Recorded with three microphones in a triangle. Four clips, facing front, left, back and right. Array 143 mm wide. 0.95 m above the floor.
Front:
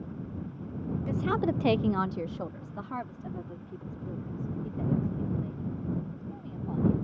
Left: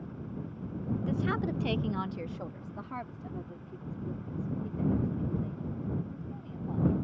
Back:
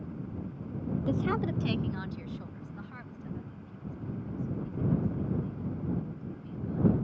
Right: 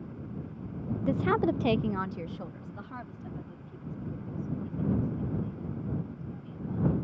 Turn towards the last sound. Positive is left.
turn(degrees=25)